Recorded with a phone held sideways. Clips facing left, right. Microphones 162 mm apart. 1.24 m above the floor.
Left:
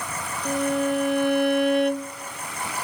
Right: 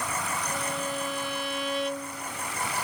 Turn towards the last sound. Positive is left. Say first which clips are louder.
# left 9 dB
turn(degrees=55)  # may be behind; listen again after turning